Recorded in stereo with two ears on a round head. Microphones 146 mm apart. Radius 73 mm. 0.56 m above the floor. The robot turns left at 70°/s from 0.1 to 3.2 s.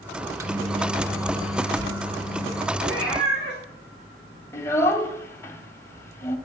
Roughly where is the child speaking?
Centre.